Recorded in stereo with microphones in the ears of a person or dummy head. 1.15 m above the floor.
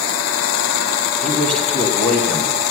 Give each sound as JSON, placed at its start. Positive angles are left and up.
{"t": 1.2, "sound": "a man speaking", "side_deg": 10, "distance_m": 1.3}